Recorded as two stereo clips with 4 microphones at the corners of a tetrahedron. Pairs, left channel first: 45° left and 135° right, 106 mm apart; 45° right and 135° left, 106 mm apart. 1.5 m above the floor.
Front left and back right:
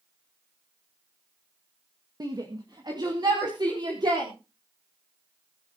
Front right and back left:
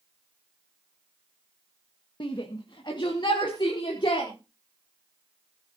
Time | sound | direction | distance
2.2 | a shout | 85° right | 1.9 m